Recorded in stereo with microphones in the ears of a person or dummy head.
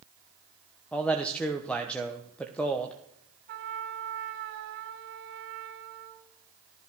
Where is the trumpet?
65° right (ahead or behind), 3 m.